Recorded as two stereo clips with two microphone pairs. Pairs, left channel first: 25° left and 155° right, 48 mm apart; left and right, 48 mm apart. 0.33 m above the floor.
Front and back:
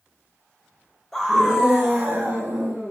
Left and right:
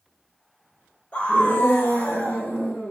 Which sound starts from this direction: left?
A scream, at 1.1 s.